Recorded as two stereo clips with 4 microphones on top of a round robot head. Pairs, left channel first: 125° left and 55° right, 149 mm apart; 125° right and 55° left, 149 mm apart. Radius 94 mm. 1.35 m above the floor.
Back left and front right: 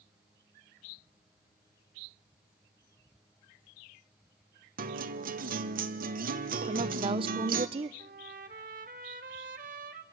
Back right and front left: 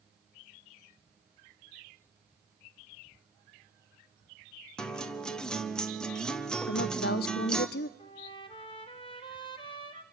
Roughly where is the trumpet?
Right.